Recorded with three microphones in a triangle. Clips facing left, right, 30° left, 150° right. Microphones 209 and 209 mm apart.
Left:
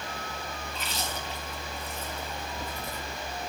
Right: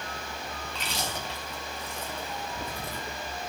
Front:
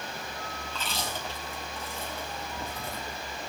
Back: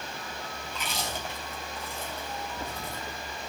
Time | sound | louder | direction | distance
0.7 | chewing | right 2 dB, back 1 dB | 75° right | 4.5 m